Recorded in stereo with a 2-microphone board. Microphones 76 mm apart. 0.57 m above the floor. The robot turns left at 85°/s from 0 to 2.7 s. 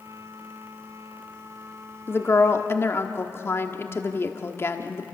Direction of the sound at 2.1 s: 125° left.